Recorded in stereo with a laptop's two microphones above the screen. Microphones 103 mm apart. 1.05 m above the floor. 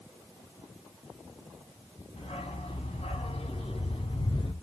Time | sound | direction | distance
2.2 | a dog barking | 65° left (ahead or behind) | 3.5 m